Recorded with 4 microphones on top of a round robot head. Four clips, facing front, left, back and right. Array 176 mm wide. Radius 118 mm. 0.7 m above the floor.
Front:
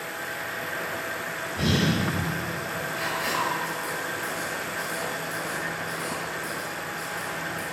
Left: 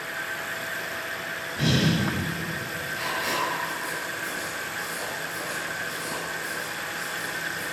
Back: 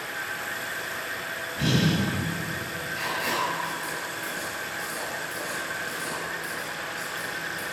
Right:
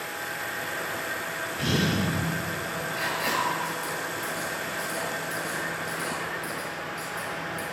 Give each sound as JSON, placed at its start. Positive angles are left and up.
{"t": 1.6, "sound": "breathing", "azimuth_deg": 40, "distance_m": 4.0}
{"t": 3.0, "sound": "writing", "azimuth_deg": -100, "distance_m": 5.5}